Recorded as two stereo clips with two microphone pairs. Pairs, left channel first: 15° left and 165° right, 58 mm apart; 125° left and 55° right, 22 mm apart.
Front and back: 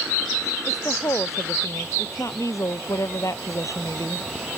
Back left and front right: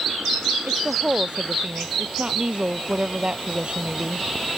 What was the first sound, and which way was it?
A woman speaking, 10° right.